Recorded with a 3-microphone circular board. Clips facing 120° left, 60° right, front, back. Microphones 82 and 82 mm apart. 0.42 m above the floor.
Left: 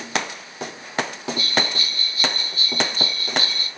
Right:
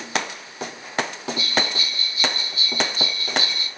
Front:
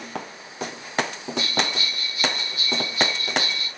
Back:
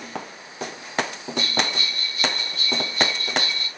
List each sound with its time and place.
1.4 s a bell: 80° left, 1.1 m